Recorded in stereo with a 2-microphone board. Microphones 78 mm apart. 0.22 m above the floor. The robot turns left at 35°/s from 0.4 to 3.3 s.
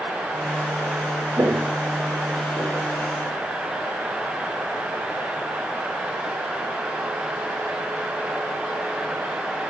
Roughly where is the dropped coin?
I don't hear a dropped coin.